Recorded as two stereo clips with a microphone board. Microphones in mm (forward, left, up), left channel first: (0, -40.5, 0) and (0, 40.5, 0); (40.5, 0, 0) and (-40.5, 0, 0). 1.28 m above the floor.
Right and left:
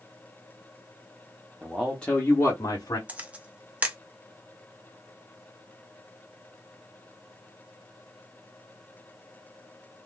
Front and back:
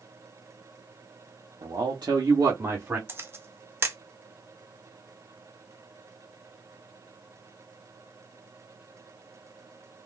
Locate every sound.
1.6 s a man speaking: 170° left, 1.0 m; by 3.0 s 115° right, 1.1 m
3.1 s a camera shutter: 150° left, 0.6 m